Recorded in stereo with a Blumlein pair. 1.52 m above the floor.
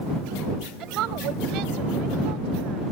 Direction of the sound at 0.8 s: 35° right.